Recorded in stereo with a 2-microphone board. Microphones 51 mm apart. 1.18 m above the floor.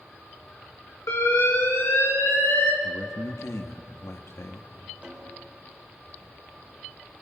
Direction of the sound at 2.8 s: 75° left (ahead or behind).